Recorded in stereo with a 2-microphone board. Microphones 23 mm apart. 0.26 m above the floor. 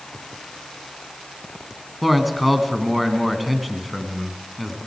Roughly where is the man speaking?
Centre.